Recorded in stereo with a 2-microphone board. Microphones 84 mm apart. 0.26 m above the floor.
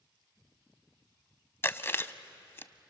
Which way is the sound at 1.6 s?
30° left (ahead or behind).